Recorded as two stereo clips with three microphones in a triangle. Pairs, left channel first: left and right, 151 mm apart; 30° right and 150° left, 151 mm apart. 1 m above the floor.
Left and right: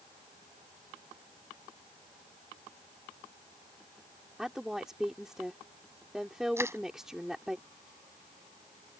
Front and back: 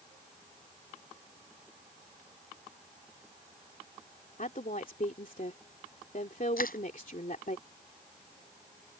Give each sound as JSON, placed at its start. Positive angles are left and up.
{"t": 4.4, "sound": "a woman speaking", "azimuth_deg": -5}
{"t": 6.6, "sound": "crushing", "azimuth_deg": -15}